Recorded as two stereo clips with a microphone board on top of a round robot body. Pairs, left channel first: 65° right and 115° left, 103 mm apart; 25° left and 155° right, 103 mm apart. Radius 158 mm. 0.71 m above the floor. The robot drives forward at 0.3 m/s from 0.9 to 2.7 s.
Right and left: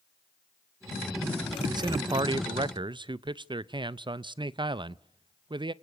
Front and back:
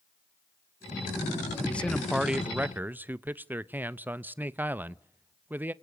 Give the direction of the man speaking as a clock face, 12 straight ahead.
9 o'clock.